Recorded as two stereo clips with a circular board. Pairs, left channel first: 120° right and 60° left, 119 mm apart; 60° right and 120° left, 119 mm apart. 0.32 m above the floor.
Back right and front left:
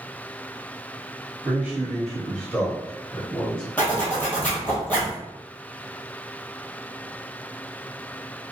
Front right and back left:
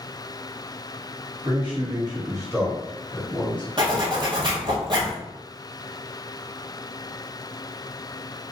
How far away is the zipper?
About 1.3 m.